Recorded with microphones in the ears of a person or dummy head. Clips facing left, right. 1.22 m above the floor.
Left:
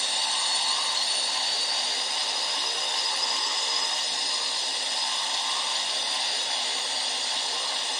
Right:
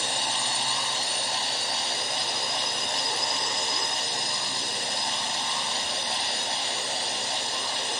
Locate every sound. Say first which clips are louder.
0.0 s a drone: right 3 dB; 45° right (ahead or behind)